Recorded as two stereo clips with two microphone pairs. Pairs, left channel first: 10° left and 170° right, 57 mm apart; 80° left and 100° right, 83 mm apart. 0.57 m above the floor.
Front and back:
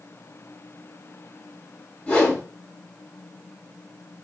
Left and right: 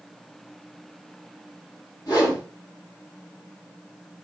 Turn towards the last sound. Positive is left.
turn(degrees=70)